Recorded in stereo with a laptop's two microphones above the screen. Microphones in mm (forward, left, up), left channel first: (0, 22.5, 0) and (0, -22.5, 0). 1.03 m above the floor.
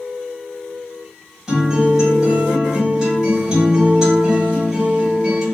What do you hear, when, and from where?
1.5 s a guitar: 10° right (ahead or behind), 2.0 m